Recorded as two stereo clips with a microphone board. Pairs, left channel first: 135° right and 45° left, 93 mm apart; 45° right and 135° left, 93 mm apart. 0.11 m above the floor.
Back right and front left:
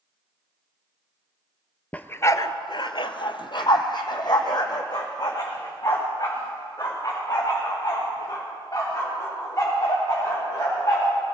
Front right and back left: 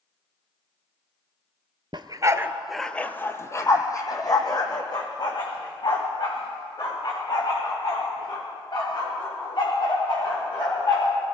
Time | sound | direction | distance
1.9 | a dog barking | 155° left | 0.7 m